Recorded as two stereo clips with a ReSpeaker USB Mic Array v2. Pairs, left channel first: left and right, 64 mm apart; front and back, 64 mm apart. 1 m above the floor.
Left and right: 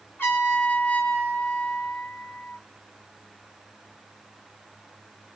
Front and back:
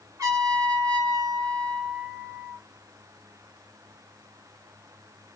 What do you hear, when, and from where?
0.2 s a trumpet: 150° left, 1.5 m